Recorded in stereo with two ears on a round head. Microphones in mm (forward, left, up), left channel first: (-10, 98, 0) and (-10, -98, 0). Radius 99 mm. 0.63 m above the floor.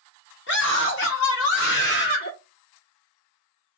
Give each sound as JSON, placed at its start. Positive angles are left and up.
{"t": 0.5, "sound": "a scream", "side_deg": 55, "distance_m": 1.5}